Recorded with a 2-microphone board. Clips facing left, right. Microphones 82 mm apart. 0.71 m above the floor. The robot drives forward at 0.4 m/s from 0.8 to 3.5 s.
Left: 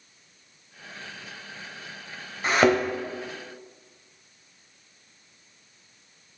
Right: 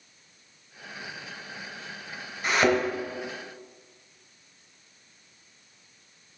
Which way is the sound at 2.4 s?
30° left (ahead or behind).